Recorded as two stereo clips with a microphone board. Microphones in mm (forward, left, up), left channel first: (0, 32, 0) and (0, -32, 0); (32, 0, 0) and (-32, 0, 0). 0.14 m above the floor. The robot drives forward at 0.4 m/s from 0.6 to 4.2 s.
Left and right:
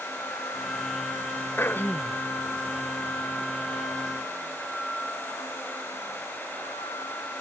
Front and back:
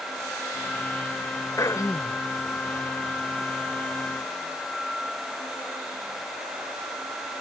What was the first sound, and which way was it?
Throat clearing, 35° left.